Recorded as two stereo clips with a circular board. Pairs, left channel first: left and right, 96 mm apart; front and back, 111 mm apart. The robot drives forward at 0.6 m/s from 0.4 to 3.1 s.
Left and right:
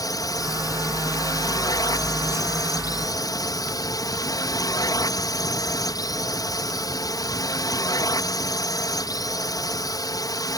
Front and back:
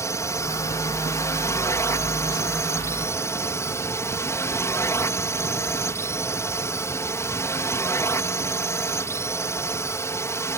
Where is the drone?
55° left.